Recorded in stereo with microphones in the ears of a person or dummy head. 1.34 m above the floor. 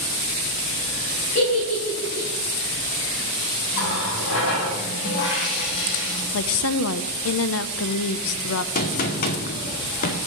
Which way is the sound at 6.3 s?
65° left (ahead or behind).